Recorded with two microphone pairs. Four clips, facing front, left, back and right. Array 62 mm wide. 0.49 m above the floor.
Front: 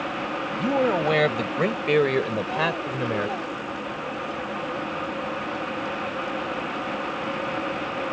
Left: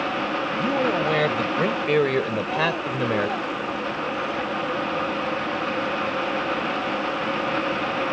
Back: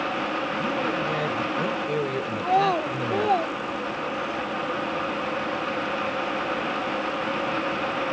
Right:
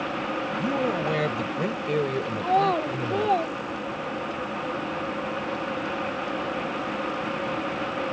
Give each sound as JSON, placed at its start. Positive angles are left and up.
{"t": 0.6, "sound": "a man speaking", "azimuth_deg": 15}
{"t": 2.4, "sound": "a child speaking", "azimuth_deg": -145}